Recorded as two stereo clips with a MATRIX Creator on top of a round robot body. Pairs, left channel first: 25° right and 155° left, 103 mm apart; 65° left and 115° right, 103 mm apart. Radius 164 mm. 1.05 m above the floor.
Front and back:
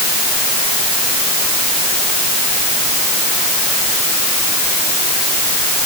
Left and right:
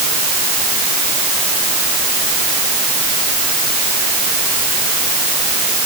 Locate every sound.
Only background noise.